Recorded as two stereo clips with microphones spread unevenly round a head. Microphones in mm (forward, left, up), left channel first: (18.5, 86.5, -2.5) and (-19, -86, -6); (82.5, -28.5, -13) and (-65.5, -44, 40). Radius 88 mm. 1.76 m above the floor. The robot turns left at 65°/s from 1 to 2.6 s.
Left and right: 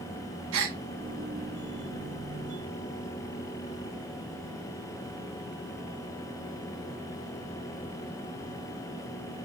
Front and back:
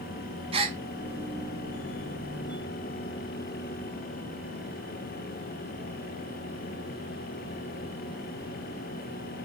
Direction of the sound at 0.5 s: 120° right.